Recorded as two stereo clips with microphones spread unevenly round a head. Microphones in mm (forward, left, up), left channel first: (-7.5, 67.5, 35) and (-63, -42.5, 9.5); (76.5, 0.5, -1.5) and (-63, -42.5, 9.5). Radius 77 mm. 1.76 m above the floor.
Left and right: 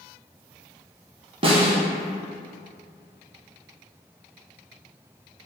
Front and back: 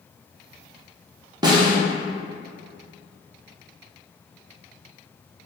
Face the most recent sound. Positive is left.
turn(degrees=-150)